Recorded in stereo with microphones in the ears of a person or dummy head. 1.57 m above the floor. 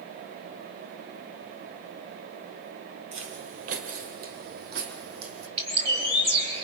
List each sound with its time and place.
3.1 s footsteps: 45° right (ahead or behind), 2 m; by 5.5 s 65° right (ahead or behind), 4.5 m
5.6 s a bird: 40° right (ahead or behind), 5 m